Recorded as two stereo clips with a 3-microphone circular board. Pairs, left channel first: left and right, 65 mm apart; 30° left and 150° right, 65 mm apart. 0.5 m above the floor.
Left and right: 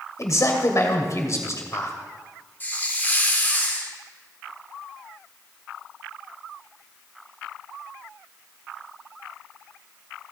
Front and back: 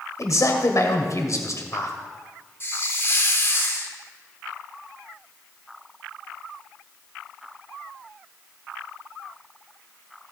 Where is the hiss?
50° left, 1.6 m.